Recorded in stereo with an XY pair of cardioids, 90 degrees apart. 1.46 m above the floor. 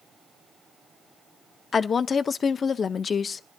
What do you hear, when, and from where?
1.7 s a woman speaking: 50° left, 0.5 m